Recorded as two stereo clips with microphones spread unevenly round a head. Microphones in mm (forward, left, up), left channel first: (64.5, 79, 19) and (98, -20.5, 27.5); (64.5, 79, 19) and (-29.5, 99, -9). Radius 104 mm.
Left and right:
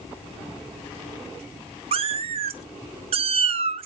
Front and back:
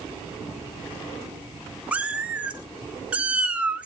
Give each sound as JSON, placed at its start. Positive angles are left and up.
{"t": 1.9, "sound": "a cat meowing", "azimuth_deg": -100, "distance_m": 0.6}